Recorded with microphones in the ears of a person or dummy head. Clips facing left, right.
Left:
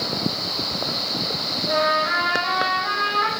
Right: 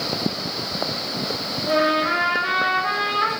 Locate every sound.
1.7 s a trumpet: 40° right (ahead or behind), 3 m